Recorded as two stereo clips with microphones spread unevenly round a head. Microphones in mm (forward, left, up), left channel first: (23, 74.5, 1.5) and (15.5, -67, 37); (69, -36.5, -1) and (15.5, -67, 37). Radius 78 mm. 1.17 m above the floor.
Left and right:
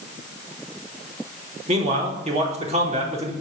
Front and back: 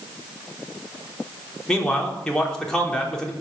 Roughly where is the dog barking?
I don't hear a dog barking.